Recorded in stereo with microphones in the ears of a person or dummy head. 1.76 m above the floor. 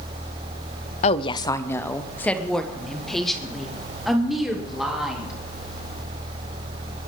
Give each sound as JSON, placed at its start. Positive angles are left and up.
{"t": 1.0, "sound": "a woman speaking", "side_deg": 40, "distance_m": 0.6}